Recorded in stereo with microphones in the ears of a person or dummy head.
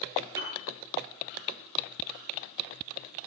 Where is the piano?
20° right (ahead or behind), 9.5 m.